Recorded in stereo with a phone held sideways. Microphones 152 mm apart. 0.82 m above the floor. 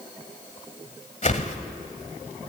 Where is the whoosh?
50° left (ahead or behind), 1.5 m.